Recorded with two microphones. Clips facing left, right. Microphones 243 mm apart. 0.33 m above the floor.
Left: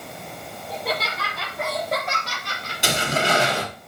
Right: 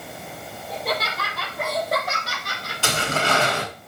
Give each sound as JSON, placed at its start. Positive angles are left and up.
{"t": 0.7, "sound": "laughter", "side_deg": 0, "distance_m": 6.0}
{"t": 2.8, "sound": "tearing paper", "side_deg": 15, "distance_m": 3.5}